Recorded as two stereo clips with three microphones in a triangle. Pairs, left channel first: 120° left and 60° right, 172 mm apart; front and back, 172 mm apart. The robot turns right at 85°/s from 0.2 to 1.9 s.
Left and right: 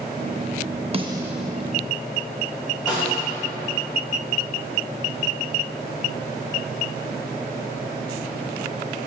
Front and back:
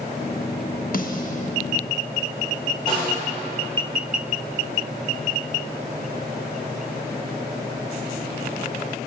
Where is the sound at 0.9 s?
10° right, 0.5 m; by 1.5 s 40° left, 0.5 m.